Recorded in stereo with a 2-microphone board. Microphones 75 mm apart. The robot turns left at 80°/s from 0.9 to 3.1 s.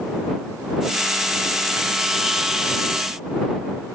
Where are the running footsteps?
No running footsteps in this recording.